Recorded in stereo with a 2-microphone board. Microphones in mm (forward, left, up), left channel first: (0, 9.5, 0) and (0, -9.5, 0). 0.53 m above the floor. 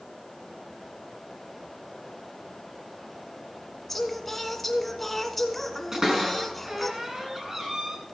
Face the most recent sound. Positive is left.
turn(degrees=-25)  # may be behind; listen again after turning